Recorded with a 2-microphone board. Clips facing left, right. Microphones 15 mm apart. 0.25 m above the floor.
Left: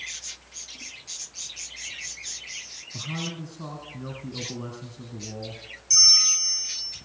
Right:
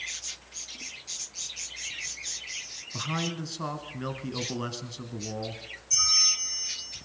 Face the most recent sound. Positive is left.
turn(degrees=55)  # may be behind; listen again after turning